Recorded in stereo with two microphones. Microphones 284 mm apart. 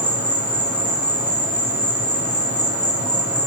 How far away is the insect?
About 3.5 m.